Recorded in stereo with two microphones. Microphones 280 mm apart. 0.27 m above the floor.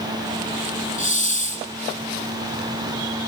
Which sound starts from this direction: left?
A hiss, at 1.0 s.